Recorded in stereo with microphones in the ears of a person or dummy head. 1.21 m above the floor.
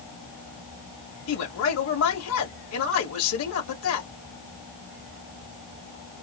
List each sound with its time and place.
1.3 s a man speaking: 70° left (ahead or behind), 2.5 m